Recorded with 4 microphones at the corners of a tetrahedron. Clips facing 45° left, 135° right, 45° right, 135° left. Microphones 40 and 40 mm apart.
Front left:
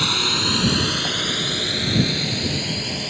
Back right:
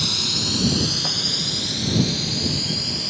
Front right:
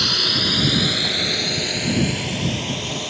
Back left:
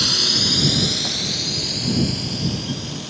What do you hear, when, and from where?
0.0 s a drone: 30° left; by 3.1 s 15° right